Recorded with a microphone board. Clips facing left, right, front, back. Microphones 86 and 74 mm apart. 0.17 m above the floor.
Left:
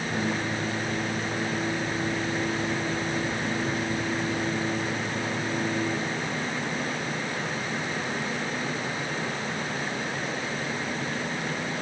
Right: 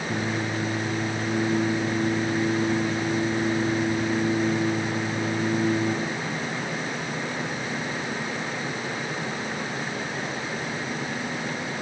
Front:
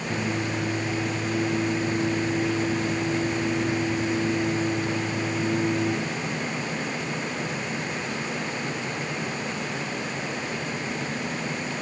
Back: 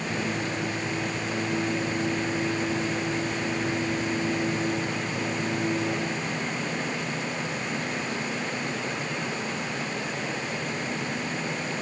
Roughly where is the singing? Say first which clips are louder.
Right 1 dB, front 3 dB; right.